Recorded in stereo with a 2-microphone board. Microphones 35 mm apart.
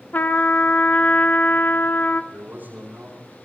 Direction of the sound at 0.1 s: 55° left (ahead or behind).